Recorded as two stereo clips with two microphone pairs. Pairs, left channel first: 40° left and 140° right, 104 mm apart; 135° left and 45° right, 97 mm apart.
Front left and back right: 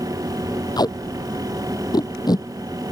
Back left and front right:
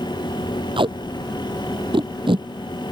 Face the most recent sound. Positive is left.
turn(degrees=-10)